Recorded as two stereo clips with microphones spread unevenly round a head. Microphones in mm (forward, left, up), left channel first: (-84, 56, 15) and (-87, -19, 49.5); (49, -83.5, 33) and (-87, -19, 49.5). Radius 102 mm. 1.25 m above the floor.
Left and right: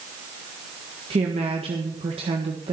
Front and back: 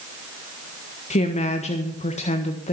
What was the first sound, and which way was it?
A woman speaking, 65° right.